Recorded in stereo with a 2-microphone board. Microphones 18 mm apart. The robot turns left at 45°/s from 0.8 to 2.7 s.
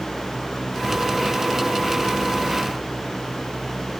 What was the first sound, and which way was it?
Only background noise.